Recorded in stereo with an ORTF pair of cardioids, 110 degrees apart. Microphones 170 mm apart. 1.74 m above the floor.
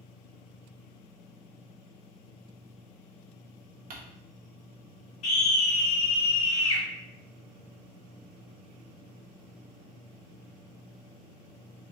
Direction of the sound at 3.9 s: 55° right.